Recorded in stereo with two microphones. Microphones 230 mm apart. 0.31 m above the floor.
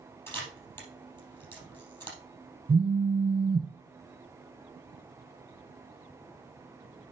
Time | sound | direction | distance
0.3 | a camera shutter | 10° left (ahead or behind) | 3.5 m
2.7 | a phone buzzing | 25° right (ahead or behind) | 1.0 m